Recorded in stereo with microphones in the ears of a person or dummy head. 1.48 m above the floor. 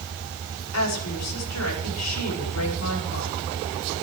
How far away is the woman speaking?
About 5 m.